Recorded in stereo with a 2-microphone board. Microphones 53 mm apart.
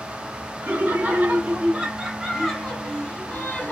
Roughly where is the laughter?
Right.